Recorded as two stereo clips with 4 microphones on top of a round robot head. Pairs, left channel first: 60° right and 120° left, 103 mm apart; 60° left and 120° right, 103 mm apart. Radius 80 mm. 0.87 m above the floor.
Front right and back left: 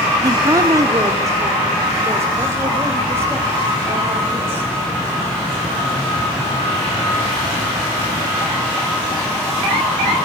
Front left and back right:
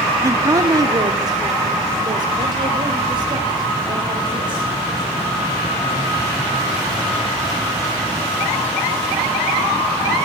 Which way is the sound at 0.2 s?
175° left.